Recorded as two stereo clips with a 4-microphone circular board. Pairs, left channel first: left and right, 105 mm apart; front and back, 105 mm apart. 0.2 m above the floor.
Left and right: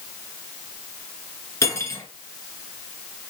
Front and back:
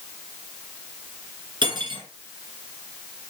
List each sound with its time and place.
1.6 s cutlery clinking: 145° left, 1.8 m